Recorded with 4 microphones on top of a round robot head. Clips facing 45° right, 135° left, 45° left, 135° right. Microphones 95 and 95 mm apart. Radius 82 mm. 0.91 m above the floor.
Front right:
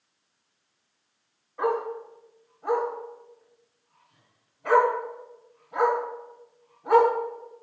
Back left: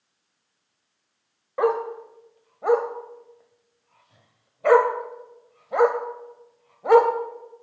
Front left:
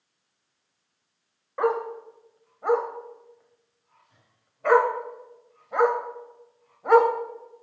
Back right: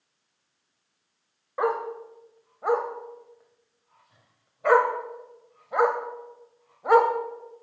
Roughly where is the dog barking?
Behind left.